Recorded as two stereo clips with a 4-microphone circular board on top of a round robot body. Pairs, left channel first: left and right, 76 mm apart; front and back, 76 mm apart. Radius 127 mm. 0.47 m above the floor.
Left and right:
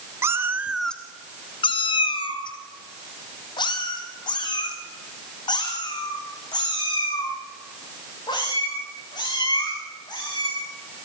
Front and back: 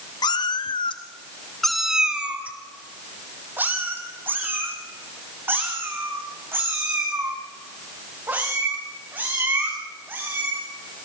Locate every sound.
0.2 s a cat meowing: 35° right, 0.9 m; by 10.6 s 120° left, 9 m